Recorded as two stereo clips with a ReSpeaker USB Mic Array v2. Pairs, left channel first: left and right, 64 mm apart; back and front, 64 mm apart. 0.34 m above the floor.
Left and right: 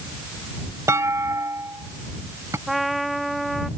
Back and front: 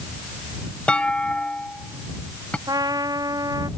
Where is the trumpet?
Straight ahead.